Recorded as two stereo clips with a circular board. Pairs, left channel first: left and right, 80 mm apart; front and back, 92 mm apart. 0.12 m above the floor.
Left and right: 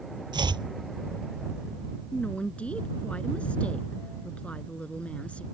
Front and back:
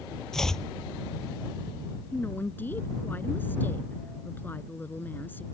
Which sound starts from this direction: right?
Chopping, at 0.3 s.